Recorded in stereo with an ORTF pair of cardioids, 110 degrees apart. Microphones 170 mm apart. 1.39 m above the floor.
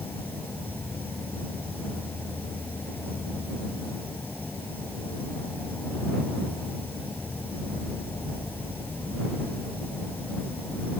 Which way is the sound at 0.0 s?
10° left.